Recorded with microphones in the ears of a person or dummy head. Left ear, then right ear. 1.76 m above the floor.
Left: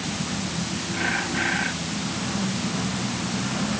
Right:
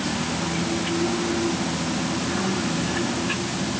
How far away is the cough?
No cough in this recording.